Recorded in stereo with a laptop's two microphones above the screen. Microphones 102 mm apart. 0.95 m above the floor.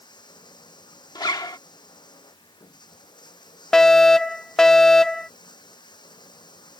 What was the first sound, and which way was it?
Running water, 45° left (ahead or behind).